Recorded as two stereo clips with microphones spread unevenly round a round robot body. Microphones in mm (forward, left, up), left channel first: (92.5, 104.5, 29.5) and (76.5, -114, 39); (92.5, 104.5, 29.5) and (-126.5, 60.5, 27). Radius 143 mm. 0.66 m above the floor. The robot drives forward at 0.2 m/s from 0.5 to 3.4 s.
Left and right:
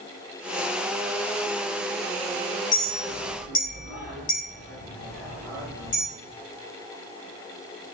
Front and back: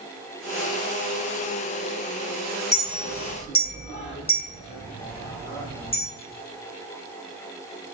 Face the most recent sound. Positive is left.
turn(degrees=80)